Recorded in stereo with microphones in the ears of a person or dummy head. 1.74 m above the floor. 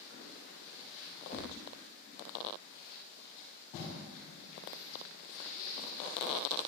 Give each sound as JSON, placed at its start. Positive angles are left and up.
{"t": 1.3, "sound": "tapping", "side_deg": -5, "distance_m": 4.0}